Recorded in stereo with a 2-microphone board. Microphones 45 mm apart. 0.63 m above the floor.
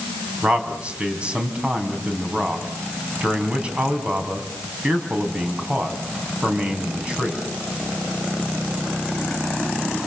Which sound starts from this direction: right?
A man speaking, at 0.4 s.